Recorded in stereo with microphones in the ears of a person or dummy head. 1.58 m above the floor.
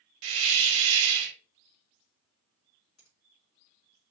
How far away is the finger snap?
About 1.8 m.